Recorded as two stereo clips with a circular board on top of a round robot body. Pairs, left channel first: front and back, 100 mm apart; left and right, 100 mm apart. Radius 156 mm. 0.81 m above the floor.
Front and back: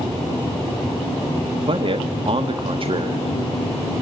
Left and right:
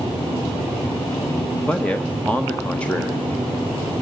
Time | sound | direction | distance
1.7 | a man speaking | 170° left | 1.2 m